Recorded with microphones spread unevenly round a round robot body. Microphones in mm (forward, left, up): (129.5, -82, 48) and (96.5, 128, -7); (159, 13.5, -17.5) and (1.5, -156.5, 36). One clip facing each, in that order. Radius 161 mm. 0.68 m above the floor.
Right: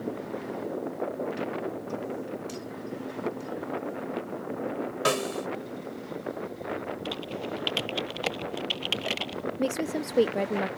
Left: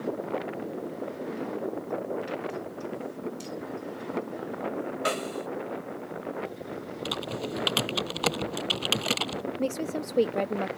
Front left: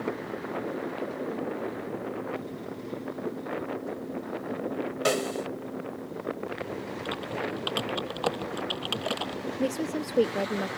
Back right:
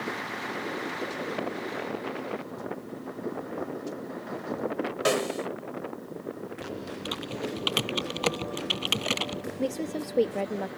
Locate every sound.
5.0 s a snare drum: 45° right
7.0 s typing on a keyboard: 155° left
9.6 s a woman speaking: 20° left